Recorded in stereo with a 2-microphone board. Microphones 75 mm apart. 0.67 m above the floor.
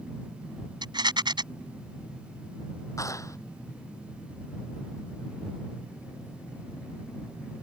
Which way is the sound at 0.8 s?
85° right.